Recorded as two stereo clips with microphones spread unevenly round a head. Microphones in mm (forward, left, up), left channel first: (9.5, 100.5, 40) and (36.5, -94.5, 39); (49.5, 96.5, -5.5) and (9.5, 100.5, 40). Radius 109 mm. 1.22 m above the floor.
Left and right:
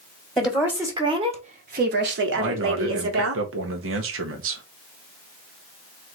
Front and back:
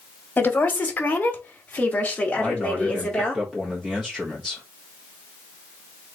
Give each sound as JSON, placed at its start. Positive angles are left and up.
{"t": 0.4, "sound": "a woman speaking", "azimuth_deg": 5, "distance_m": 1.3}
{"t": 2.4, "sound": "a man speaking", "azimuth_deg": -85, "distance_m": 1.2}